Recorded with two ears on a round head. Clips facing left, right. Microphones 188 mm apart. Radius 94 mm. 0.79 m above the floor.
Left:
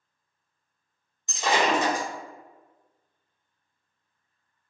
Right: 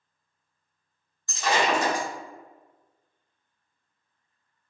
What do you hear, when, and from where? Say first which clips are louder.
1.3 s breaking glass: left 1 dB; 20° left (ahead or behind), 1.1 m